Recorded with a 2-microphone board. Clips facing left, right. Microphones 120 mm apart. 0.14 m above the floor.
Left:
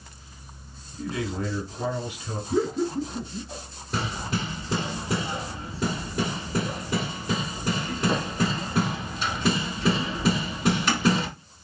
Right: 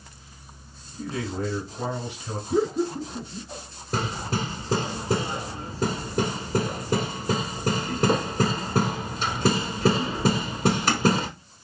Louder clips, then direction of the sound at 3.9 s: Right 1 dB; 40° right (ahead or behind).